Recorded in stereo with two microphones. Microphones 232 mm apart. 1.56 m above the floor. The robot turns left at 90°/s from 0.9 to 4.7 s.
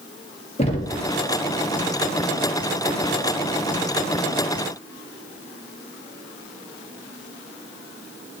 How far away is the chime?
I don't hear a chime.